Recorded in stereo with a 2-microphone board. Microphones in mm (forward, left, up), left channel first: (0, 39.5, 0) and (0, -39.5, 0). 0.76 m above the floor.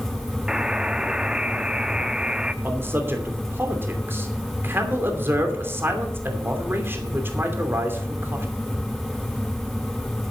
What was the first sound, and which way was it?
A buzzer, 10° right (ahead or behind).